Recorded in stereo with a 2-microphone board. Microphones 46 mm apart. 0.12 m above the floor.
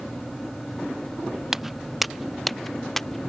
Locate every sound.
1.5 s footsteps: 10° right (ahead or behind); by 3.3 s 10° left (ahead or behind)